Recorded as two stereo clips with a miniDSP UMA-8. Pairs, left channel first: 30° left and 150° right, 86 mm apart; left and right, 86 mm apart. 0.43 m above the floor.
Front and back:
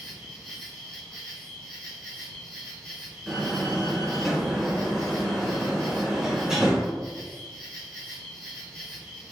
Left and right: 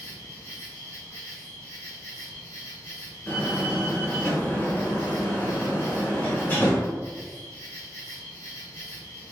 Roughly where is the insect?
Ahead right.